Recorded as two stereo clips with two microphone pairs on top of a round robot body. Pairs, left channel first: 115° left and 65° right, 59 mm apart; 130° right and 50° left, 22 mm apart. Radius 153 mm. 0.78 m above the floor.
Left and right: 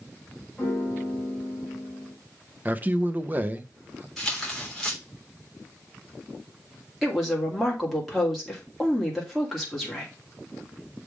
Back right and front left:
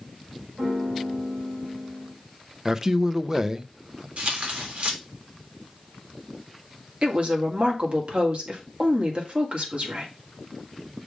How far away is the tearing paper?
About 3 m.